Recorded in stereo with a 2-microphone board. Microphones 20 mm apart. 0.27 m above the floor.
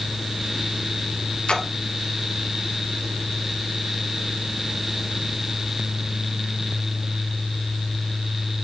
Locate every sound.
1.5 s a splash: 65° left (ahead or behind), 1.7 m